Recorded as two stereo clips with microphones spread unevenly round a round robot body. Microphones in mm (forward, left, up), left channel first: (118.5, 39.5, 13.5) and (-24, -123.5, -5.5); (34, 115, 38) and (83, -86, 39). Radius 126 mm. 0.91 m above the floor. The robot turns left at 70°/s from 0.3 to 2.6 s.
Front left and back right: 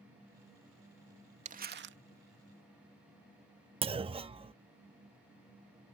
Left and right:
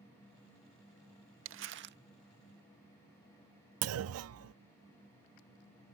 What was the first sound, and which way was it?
Crumpling, 80° right.